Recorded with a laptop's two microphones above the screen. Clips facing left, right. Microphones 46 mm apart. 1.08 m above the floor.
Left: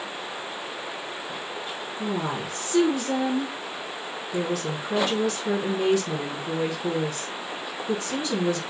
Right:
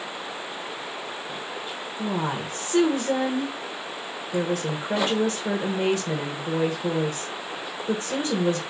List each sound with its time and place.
2.0 s a woman speaking: 35° right (ahead or behind), 1.3 m